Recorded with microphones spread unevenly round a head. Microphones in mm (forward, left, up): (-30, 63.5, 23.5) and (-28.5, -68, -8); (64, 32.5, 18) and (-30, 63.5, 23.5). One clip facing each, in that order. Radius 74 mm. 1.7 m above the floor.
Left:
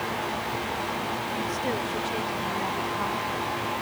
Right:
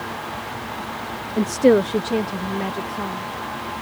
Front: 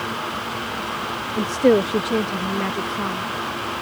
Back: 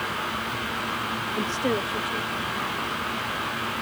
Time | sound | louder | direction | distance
1.4 | a woman speaking | right 18 dB, front 11 dB | 95° right | ?